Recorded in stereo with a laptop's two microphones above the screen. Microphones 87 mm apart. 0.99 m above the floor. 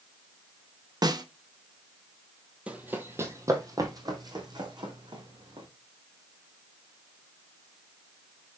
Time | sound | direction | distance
1.0 | a snare drum | 50° right (ahead or behind) | 1.0 m
2.7 | running footsteps | 15° right (ahead or behind) | 1.1 m